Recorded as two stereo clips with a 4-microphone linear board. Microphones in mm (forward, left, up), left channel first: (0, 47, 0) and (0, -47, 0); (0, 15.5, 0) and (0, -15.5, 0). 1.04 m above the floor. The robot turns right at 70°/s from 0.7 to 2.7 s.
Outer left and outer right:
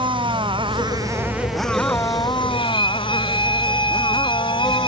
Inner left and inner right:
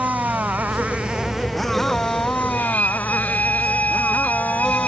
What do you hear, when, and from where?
0.0 s a motorcycle: 60° right; by 4.9 s 80° left
2.5 s a violin: 75° left (ahead or behind); by 4.9 s 60° left (ahead or behind)